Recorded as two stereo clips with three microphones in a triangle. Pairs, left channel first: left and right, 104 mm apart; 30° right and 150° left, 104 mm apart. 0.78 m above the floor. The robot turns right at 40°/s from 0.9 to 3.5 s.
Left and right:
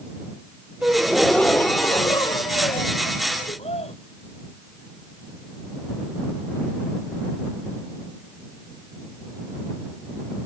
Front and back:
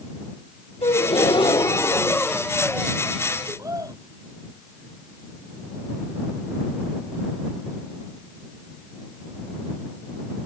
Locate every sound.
0.8 s a gasp: 10° right; by 3.9 s 90° left